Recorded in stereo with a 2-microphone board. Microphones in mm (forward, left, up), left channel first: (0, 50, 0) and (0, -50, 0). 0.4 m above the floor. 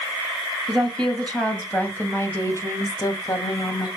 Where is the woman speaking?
5° left (ahead or behind), 2.5 m; by 3.9 s 45° left (ahead or behind), 2.5 m.